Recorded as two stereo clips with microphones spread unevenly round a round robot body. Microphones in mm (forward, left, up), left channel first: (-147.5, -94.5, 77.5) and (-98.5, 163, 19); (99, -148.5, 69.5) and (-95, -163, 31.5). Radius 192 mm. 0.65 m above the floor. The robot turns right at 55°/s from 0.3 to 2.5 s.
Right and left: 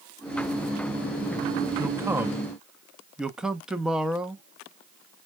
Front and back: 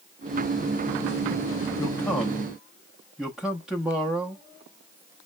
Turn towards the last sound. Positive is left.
turn(degrees=130)